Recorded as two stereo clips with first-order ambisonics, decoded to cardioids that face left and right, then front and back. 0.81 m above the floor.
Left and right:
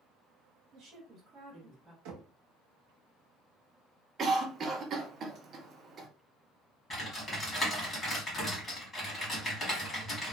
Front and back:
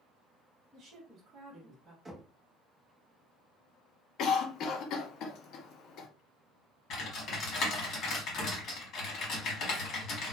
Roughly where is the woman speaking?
Behind right.